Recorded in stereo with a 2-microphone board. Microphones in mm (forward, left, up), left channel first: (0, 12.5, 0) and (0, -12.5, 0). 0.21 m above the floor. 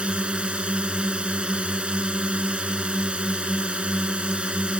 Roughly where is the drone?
Right.